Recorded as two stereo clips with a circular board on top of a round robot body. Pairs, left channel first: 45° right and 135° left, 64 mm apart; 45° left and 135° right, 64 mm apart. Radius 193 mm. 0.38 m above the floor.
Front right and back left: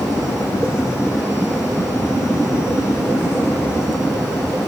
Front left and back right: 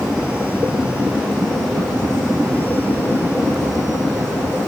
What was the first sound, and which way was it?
Only background noise.